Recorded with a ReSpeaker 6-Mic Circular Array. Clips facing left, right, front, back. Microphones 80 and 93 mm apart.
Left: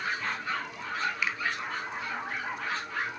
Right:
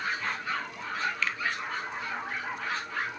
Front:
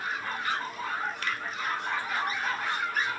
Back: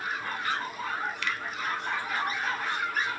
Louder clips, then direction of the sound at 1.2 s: Even, even; 20° left.